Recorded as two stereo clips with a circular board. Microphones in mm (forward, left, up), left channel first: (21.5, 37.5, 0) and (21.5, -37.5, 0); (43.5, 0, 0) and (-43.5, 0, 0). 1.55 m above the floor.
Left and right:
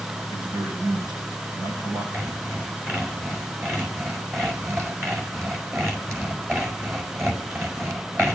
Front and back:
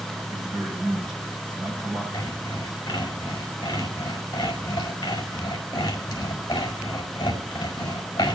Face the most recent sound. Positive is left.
turn(degrees=-40)